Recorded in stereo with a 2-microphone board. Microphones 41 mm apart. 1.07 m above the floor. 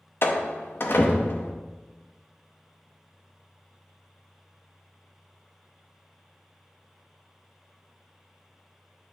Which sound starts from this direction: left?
A door slam, at 0.2 s.